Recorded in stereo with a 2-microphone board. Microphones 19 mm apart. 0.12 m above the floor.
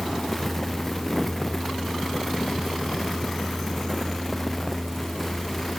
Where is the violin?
I don't hear a violin.